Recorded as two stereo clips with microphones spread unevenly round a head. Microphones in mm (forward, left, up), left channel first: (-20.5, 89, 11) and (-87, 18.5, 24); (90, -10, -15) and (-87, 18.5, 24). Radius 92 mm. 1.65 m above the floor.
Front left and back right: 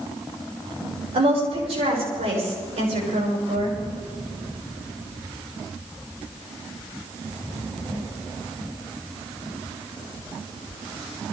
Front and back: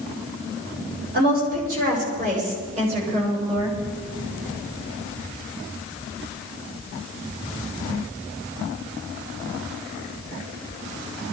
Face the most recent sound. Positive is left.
turn(degrees=-125)